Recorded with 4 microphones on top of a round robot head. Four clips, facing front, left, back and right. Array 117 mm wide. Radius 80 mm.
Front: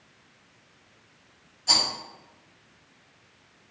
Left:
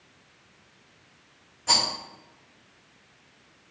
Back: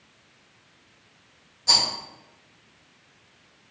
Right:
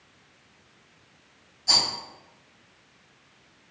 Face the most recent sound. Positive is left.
turn(degrees=115)